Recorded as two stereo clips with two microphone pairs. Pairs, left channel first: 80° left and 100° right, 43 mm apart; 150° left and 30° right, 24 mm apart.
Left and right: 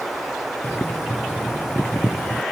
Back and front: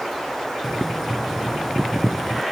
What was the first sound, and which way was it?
Boiling, 50° left.